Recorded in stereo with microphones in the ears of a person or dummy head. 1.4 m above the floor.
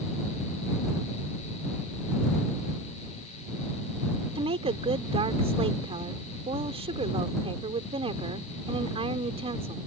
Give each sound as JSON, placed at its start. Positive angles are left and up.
{"t": 4.3, "sound": "a woman speaking", "side_deg": -35}